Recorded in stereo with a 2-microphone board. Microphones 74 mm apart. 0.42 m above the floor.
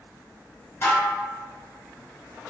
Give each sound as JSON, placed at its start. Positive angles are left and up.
{"t": 0.8, "sound": "dishes clattering", "side_deg": 40, "distance_m": 1.1}